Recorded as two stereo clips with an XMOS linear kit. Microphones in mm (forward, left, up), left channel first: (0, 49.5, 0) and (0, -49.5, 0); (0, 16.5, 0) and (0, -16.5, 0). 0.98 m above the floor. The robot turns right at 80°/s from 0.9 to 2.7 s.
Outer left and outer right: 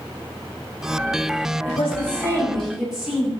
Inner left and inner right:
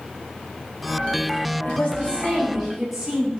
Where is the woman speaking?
100° left, 6 m; by 3.3 s 175° right, 6 m.